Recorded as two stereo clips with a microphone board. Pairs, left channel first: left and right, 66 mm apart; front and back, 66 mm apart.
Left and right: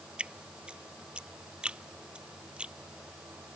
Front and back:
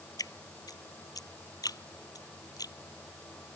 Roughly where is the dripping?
Ahead.